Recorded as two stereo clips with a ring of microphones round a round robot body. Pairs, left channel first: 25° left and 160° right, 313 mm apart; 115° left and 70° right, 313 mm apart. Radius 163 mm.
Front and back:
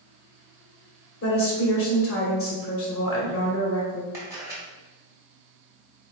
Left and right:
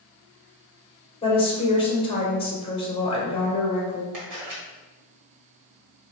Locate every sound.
1.2 s a woman speaking: 45° left, 1.7 m
4.1 s a camera shutter: 75° right, 1.8 m